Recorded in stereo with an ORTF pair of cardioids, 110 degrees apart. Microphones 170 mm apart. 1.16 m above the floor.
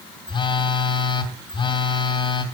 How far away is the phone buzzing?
About 3 m.